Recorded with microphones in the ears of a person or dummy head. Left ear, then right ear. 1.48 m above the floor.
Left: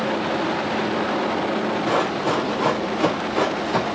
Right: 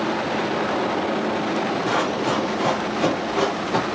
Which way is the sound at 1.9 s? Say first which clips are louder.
Left 2 dB; 25° right (ahead or behind).